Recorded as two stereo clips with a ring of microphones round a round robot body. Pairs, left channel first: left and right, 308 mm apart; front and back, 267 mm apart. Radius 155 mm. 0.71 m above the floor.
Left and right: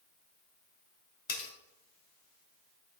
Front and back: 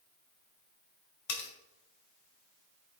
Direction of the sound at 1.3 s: 25° left.